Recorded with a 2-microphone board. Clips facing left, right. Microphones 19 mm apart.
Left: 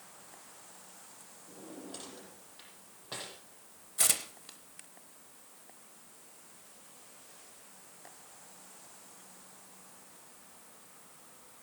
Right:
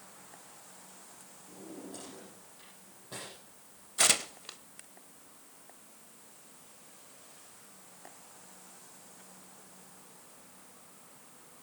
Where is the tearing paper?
30° right (ahead or behind), 0.6 m.